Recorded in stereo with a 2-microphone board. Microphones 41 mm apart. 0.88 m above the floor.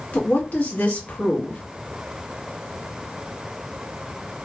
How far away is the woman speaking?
About 1.1 m.